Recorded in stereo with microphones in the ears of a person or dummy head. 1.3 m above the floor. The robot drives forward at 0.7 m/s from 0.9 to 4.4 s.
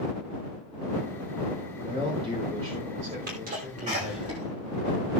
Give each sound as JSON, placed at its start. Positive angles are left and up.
{"t": 1.9, "sound": "a man speaking", "side_deg": -30, "distance_m": 4.0}
{"t": 3.3, "sound": "a sneeze", "side_deg": -50, "distance_m": 1.2}